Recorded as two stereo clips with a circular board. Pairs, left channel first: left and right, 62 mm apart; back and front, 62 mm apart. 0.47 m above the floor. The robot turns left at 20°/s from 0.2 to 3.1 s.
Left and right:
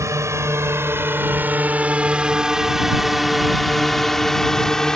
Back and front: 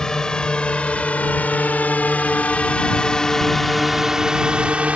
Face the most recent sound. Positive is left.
turn(degrees=20)